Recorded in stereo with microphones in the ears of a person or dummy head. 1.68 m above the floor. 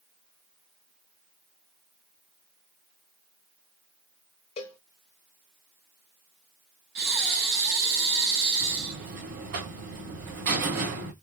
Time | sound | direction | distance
4.6 | a cowbell | 25° left (ahead or behind) | 0.6 m
7.0 | breathing | 55° right (ahead or behind) | 1.5 m
8.6 | a buzzer | 50° right (ahead or behind) | 1.9 m